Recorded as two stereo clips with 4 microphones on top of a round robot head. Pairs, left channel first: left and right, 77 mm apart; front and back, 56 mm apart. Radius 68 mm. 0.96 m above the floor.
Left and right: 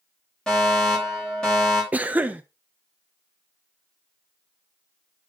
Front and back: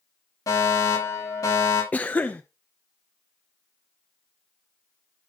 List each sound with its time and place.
0.5 s a fire alarm: 5° left, 7 m
1.9 s a cough: 35° right, 0.6 m